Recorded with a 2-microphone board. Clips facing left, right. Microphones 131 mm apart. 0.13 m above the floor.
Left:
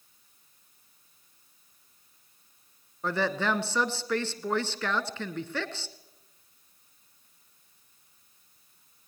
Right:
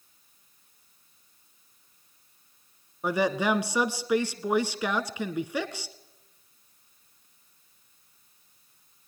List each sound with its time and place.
3.0 s a woman speaking: 10° right (ahead or behind), 1.4 m